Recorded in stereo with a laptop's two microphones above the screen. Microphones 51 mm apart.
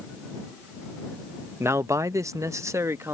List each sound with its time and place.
1.6 s a man speaking: 55° right (ahead or behind); by 3.1 s 60° right (ahead or behind)